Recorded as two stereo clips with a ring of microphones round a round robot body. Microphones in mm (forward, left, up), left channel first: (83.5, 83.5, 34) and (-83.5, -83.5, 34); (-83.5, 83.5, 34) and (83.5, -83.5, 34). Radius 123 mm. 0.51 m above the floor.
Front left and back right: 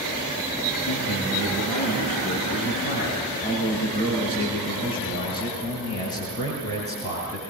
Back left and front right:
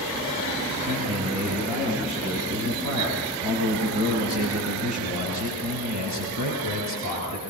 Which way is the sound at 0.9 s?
10° right.